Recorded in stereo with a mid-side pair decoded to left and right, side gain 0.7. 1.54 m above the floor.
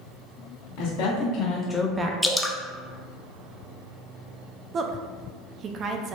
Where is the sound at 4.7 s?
40° right, 0.6 m.